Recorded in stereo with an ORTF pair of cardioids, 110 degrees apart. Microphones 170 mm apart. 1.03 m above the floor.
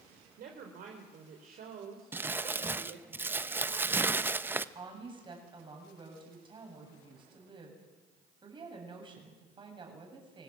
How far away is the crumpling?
About 0.8 m.